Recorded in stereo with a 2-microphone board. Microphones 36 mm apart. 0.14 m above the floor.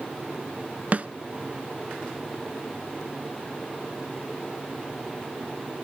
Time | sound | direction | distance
0.9 | a snare drum | 40° right (ahead or behind) | 0.6 m